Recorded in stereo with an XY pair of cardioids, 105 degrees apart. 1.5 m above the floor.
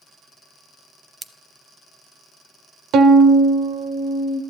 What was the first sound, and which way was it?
Scissors, 15° right.